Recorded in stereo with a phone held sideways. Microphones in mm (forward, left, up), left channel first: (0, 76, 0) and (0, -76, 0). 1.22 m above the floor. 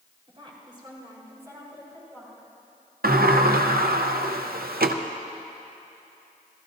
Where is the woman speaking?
40° right (ahead or behind), 4 m; by 2.5 s 5° right (ahead or behind), 6 m.